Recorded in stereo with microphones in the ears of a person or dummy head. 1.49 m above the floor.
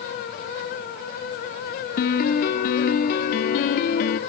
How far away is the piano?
About 1.3 m.